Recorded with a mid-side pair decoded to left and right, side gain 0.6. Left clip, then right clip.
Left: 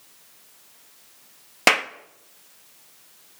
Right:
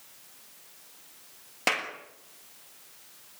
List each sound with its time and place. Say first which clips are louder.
1.7 s a clap: left 9 dB; 50° left, 1.6 m